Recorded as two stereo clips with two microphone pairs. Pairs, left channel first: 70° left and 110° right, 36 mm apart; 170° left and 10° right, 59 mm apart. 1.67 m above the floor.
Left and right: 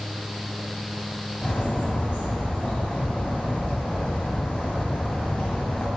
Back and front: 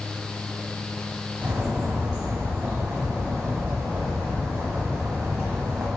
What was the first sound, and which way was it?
A bird, 50° left.